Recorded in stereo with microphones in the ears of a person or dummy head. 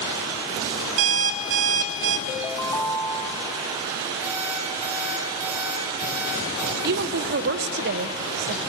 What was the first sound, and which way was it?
An alarm clock, 65° right (ahead or behind).